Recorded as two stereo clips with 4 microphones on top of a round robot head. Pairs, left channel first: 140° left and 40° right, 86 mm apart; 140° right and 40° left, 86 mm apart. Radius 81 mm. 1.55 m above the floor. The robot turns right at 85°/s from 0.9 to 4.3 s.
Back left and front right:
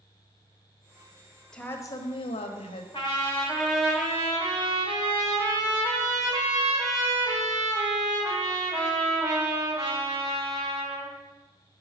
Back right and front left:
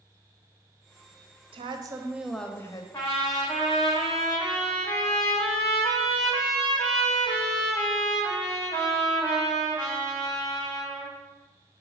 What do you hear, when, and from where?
1.5 s a woman speaking: 60° left, 0.8 m; by 2.8 s 175° left, 0.8 m
2.9 s a trumpet: 160° left, 1.1 m; by 11.1 s 85° right, 1.1 m